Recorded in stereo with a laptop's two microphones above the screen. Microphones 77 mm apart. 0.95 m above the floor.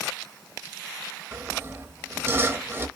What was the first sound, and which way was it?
Sawing, 30° right (ahead or behind).